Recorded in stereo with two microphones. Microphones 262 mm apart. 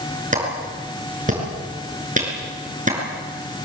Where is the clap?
30° right (ahead or behind), 6 m.